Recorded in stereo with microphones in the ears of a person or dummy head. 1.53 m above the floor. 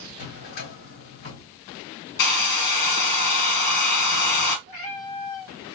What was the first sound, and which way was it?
A drawer, 70° left (ahead or behind).